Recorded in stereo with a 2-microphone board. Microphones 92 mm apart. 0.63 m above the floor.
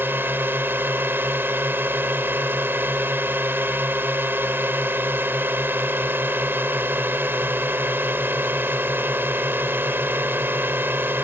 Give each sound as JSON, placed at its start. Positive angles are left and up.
{"t": 0.0, "sound": "a drone", "side_deg": -25}